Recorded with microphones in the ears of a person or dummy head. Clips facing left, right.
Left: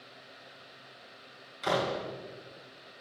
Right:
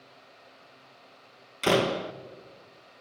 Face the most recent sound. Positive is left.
turn(degrees=-45)  # may be behind; listen again after turning